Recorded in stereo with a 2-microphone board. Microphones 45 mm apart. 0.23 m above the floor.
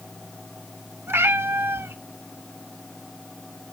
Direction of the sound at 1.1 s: 70° right (ahead or behind).